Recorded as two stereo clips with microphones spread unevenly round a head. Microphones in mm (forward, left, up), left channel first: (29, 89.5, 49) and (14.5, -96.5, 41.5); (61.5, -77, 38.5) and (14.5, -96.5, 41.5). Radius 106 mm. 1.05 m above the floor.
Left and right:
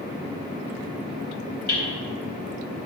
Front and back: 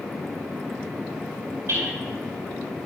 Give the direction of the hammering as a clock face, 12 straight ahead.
8 o'clock.